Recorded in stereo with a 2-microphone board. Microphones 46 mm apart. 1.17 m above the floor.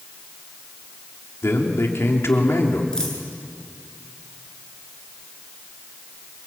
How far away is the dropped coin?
About 7.5 m.